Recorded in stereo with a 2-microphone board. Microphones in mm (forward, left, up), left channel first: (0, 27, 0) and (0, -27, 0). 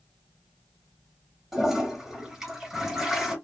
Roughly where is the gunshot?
I don't hear a gunshot.